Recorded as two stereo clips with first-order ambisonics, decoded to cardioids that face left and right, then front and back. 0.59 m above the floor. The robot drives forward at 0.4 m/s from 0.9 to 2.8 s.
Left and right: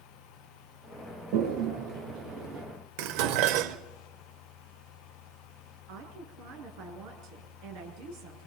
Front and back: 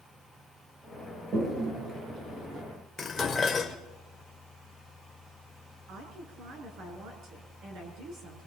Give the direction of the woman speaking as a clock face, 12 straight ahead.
4 o'clock.